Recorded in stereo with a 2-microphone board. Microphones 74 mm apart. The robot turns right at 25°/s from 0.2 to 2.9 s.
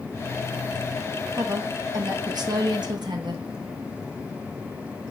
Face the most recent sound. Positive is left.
turn(degrees=-100)